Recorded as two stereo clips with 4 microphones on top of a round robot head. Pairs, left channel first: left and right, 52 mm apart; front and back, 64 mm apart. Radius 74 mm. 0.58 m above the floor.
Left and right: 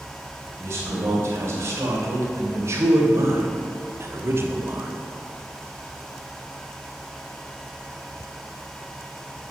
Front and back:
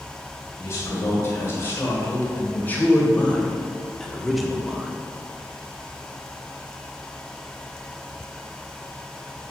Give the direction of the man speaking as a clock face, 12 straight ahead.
2 o'clock.